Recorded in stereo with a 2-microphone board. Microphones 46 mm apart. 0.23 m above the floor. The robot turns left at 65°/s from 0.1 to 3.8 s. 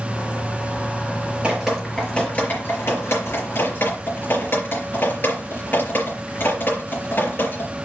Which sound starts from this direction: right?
Dripping, at 1.4 s.